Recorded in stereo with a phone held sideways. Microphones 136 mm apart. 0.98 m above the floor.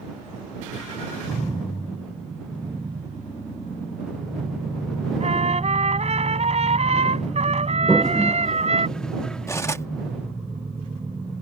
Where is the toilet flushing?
5° left (ahead or behind).